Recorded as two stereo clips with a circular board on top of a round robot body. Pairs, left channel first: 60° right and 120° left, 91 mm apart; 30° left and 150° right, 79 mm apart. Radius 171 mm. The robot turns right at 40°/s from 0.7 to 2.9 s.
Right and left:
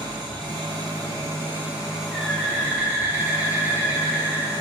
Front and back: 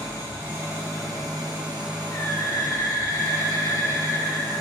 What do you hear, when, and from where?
0.0 s an engine running: 150° left, 1.1 m; by 4.6 s 120° right, 1.1 m
2.1 s a bird: 30° left, 0.8 m; by 4.5 s 65° left, 0.8 m